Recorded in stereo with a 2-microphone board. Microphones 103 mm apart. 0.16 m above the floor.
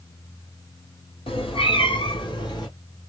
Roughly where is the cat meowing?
Left.